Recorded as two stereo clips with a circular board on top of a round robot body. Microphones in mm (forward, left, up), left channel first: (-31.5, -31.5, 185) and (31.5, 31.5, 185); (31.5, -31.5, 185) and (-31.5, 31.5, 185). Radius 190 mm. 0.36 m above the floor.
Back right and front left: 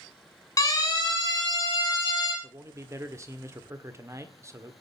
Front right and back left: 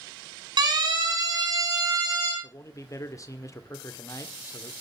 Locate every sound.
0.6 s a siren: 175° left, 7 m; by 2.3 s 175° right, 8.5 m
2.4 s a man speaking: 5° right, 2 m